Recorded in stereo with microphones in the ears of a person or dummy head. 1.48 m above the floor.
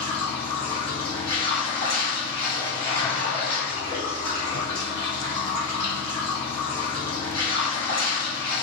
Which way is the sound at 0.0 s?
20° left (ahead or behind).